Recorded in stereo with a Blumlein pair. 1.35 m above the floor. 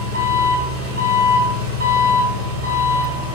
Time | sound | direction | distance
0.0 | an engine running | 65° right | 4 m